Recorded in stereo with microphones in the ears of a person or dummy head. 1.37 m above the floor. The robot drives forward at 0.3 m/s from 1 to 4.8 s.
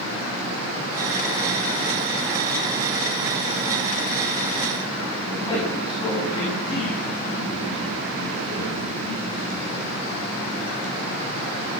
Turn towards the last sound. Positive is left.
turn(degrees=25)  # may be behind; listen again after turning